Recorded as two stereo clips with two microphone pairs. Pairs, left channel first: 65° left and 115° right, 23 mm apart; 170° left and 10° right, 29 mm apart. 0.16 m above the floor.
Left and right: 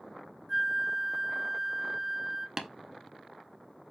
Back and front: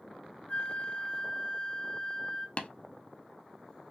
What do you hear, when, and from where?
0.5 s a flute: 165° left, 0.5 m
2.6 s tapping: straight behind, 0.7 m